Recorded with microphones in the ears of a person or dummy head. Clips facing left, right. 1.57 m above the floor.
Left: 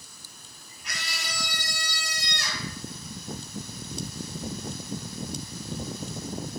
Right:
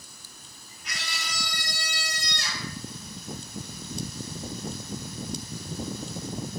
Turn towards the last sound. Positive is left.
turn(degrees=45)  # may be behind; listen again after turning